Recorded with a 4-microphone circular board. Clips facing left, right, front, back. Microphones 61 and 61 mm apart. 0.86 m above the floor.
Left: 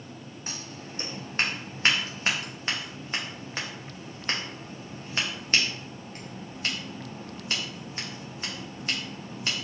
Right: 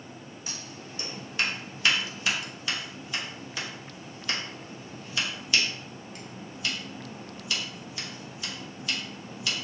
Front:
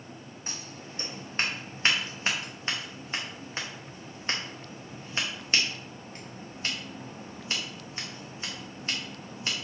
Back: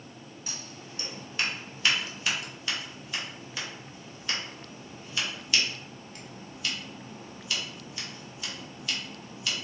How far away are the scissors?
About 0.9 m.